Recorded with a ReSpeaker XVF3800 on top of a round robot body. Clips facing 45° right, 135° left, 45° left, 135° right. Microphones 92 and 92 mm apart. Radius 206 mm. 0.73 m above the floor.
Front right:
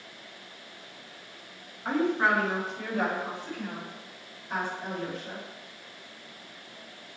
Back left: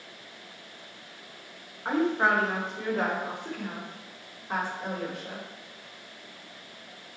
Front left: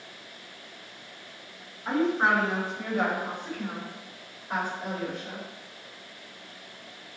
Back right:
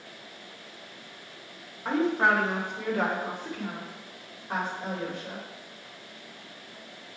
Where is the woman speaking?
160° right, 2.5 m; by 5.4 s 165° left, 3.5 m.